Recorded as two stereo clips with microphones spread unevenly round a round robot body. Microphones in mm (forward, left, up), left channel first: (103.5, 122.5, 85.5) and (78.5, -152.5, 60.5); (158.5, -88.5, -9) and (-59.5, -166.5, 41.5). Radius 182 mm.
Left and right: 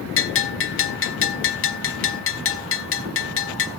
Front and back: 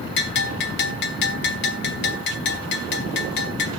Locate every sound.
0.2 s a bell: 45° left, 1.1 m